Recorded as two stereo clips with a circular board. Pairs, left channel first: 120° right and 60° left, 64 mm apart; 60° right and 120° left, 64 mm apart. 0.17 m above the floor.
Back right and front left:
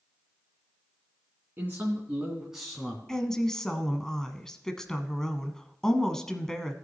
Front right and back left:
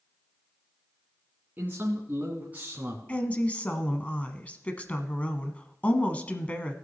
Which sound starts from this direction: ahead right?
A woman speaking, at 3.1 s.